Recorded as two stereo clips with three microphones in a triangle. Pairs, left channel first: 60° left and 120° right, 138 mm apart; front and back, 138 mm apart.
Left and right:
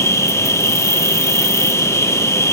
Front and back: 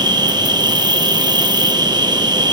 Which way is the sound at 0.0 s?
125° left.